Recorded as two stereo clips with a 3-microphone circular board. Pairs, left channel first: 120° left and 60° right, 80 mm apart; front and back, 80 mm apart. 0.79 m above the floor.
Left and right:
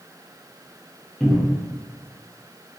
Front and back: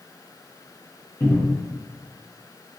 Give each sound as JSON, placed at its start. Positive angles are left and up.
{"t": 1.2, "sound": "a cupboard door", "azimuth_deg": 35, "distance_m": 0.7}